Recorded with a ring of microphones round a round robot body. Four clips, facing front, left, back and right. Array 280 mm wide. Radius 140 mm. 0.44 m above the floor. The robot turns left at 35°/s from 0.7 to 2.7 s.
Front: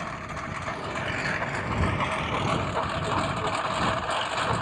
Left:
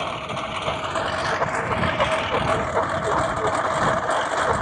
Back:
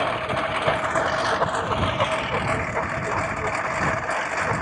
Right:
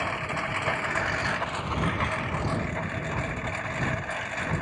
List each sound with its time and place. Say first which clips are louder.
0.0 s a lawn mower: left 3 dB, back 10 dB; 170° left; by 4.6 s 100° left